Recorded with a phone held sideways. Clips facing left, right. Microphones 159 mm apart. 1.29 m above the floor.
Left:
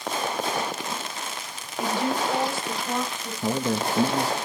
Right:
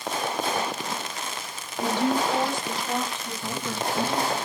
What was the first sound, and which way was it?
A woman speaking, 10° left (ahead or behind).